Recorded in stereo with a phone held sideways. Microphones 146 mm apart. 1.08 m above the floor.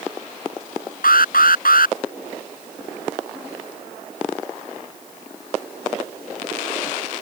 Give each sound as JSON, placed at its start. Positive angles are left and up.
{"t": 1.0, "sound": "an alarm", "side_deg": 80}